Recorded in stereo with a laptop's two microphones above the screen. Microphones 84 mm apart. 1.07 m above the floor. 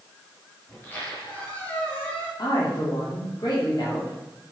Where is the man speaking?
50° left (ahead or behind), 3 m.